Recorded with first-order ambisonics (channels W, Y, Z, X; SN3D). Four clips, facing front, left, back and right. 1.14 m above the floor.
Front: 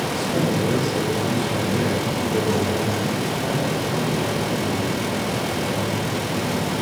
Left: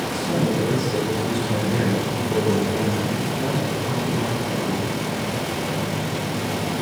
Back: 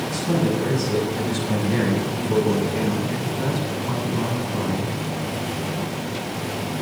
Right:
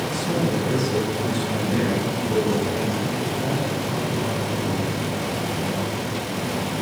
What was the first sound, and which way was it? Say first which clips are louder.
A man speaking: left 2 dB, back 2 dB; 165° right.